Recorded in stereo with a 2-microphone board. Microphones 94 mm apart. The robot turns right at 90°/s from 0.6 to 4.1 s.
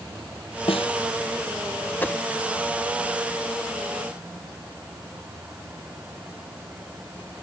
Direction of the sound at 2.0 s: 20° left (ahead or behind).